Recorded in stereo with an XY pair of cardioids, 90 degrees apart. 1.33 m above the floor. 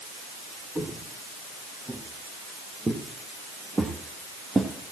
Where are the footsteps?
25° right, 5.5 m; by 4.7 s 30° right, 2.5 m.